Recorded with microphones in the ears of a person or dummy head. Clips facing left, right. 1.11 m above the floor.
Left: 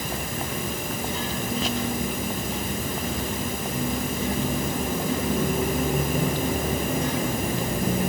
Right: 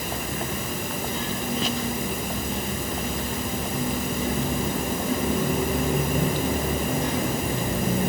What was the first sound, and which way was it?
Only background noise.